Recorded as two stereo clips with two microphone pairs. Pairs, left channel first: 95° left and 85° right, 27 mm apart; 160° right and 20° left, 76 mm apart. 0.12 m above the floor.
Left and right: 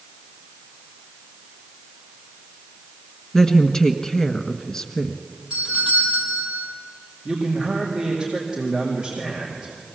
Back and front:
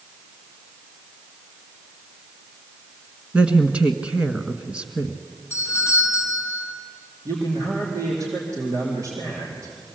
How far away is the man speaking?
About 4 m.